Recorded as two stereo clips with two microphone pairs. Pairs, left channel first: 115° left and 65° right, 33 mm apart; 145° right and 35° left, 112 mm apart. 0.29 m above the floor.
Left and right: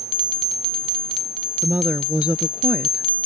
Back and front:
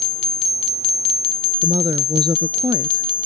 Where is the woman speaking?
10° right; by 3.0 s 25° right.